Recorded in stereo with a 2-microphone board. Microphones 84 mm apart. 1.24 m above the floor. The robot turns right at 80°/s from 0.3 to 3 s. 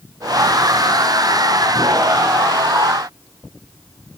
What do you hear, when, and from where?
Only background noise.